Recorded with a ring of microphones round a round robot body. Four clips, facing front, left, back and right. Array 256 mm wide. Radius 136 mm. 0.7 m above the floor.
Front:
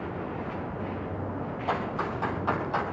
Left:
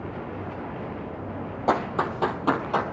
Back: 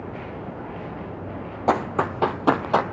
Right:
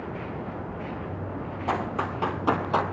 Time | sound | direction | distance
1.7 | running footsteps | 150° left | 1.5 m